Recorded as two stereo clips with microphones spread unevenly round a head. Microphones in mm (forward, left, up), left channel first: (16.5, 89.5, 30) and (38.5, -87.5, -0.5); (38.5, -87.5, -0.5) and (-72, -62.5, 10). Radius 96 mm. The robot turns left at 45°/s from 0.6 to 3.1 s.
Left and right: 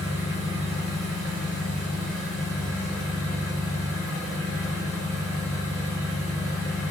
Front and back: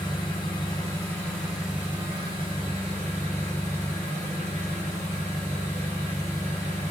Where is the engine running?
65° right, 1.3 m; by 6.9 s 175° right, 1.3 m.